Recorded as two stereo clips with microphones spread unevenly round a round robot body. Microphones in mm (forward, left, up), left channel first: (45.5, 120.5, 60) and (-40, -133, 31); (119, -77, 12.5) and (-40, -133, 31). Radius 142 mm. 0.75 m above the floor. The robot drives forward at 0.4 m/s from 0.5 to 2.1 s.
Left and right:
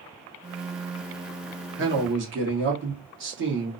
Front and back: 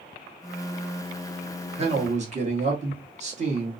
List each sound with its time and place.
1.8 s a man speaking: 115° right, 1.3 m; by 3.7 s 120° right, 1.3 m